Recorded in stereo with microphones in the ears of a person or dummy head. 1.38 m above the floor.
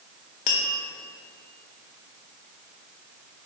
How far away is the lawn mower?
No lawn mower in this recording.